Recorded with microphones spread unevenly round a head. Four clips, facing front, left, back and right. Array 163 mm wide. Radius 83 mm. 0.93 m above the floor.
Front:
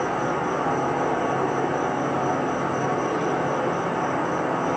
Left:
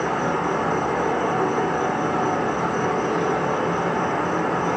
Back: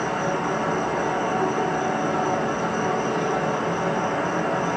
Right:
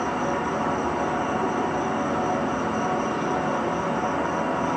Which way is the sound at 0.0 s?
100° left.